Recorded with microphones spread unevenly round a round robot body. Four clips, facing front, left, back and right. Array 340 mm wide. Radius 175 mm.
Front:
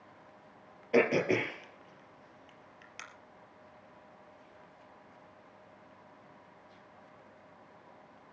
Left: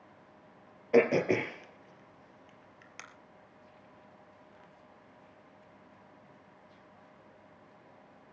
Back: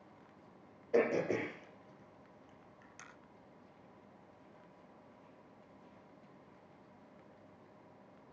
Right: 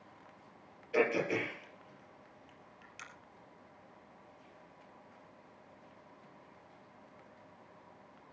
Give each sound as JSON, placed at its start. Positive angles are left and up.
{"t": 0.9, "sound": "throat clearing", "azimuth_deg": 50, "distance_m": 3.5}